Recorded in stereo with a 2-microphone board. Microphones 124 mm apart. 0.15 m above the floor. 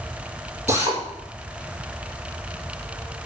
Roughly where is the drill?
Right.